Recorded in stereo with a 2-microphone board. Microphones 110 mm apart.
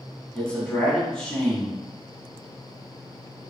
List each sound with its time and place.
0.3 s a man speaking: 10° left (ahead or behind), 1.1 m